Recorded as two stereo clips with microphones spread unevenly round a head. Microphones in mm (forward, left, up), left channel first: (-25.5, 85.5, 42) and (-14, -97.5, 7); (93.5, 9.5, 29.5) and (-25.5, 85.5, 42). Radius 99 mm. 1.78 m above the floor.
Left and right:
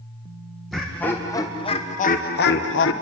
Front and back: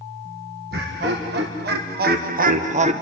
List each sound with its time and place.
0.7 s laughter: straight behind, 2 m; by 2.9 s 110° left, 1.8 m